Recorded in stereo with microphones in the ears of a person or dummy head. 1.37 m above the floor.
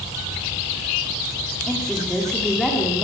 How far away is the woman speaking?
About 3 m.